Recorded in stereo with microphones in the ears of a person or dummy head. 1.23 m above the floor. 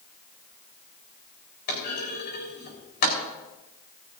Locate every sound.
1.7 s a clunk: 50° left (ahead or behind), 4 m